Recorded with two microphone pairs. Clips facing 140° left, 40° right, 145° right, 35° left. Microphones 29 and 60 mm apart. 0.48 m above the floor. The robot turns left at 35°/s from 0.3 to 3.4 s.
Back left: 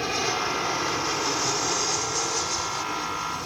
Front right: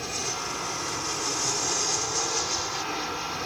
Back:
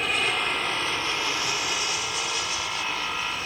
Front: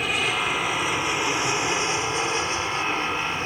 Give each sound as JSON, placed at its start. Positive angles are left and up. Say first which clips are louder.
{"t": 0.0, "sound": "an aircraft", "louder": "back left 6 dB, front 1 dB", "azimuth_deg": 120}